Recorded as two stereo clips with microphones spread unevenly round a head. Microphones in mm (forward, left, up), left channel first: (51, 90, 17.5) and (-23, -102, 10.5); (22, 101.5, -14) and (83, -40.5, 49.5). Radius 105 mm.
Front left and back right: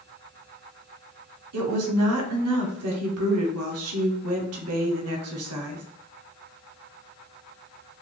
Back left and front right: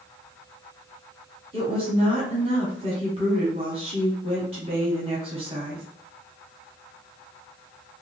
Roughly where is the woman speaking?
Behind right.